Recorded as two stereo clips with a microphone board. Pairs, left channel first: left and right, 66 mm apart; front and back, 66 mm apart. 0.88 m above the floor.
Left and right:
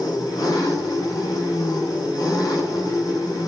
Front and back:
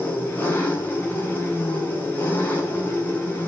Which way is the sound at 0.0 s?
65° left.